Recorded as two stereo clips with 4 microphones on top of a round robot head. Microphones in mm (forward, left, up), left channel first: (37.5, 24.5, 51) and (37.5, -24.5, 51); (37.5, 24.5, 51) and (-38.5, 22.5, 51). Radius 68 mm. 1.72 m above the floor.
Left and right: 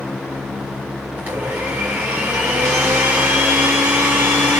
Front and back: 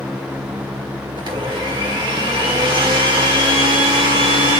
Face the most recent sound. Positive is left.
turn(degrees=-150)